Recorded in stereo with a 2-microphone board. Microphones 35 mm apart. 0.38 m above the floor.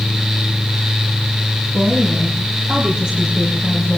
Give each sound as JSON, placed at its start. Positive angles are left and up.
{"t": 1.7, "sound": "a woman speaking", "side_deg": -60, "distance_m": 5.0}